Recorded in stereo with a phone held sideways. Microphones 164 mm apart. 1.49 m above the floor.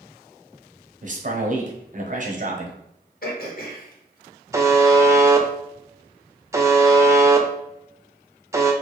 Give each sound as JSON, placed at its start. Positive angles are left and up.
{"t": 1.0, "sound": "a man speaking", "side_deg": -50, "distance_m": 0.8}
{"t": 3.2, "sound": "throat clearing", "side_deg": 60, "distance_m": 0.9}
{"t": 4.5, "sound": "a buzzer", "side_deg": -20, "distance_m": 0.5}